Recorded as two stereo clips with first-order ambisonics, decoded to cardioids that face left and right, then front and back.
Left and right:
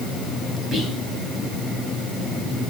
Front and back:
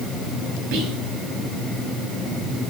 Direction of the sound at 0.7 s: 155° right.